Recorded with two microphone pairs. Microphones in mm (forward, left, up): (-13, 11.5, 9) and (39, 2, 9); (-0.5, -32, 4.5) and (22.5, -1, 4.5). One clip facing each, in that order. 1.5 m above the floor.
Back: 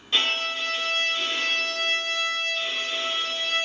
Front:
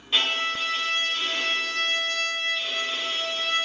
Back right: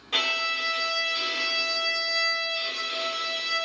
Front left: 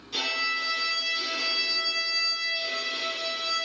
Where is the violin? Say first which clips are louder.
Even, back right 2 dB; 100° right, 2.5 m.